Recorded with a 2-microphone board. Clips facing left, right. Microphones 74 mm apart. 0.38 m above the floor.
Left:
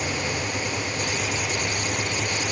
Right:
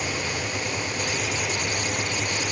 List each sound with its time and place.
Only background noise.